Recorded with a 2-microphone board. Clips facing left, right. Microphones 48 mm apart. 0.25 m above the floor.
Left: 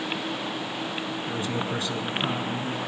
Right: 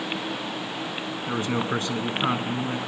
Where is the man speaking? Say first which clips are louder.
Right 5 dB; 45° right (ahead or behind), 2.5 m.